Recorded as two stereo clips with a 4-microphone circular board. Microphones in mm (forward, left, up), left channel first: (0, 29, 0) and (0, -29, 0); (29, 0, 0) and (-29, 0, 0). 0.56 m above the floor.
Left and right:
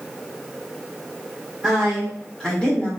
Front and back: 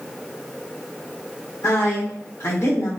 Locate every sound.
1.6 s a woman speaking: 15° right, 1.7 m; by 2.9 s 25° left, 1.7 m